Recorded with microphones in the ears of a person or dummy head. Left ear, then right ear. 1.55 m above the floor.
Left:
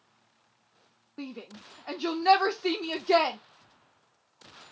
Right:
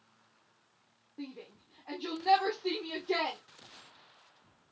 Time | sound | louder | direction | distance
1.2 | a shout | left 5 dB | 75° left (ahead or behind) | 0.8 m